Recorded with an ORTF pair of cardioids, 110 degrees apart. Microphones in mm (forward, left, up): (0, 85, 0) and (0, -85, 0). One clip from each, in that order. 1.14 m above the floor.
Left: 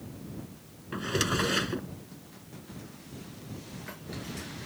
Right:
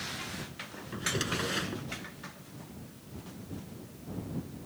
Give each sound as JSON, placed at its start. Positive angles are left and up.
{"t": 0.9, "sound": "a drawer", "azimuth_deg": 30}